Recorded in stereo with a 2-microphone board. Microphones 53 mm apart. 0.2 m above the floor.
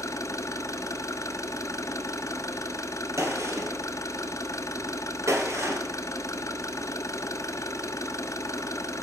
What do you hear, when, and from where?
0.0 s an engine running: 75° left (ahead or behind), 0.8 m
3.2 s a gunshot: 70° right (ahead or behind), 2 m